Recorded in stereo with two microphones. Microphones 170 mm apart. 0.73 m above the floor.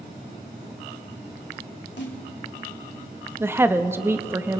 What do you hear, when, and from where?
2.0 s a snare drum: 80° left, 2.5 m
3.4 s a woman speaking: 15° right (ahead or behind), 0.6 m